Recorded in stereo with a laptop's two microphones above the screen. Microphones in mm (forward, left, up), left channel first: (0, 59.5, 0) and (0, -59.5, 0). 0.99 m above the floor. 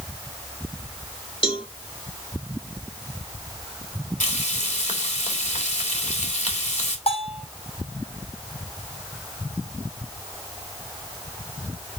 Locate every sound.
1.4 s a cowbell: 50° left (ahead or behind), 2.5 m
4.2 s frying: 85° left, 3 m
7.1 s a bell: 60° left (ahead or behind), 6 m